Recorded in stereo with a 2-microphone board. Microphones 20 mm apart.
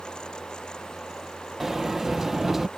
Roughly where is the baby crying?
No baby crying in this recording.